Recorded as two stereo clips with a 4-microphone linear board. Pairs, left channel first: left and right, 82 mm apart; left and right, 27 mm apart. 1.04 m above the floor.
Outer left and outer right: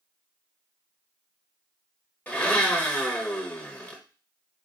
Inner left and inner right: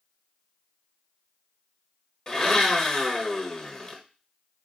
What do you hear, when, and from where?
2.3 s a blender: 20° left (ahead or behind), 0.9 m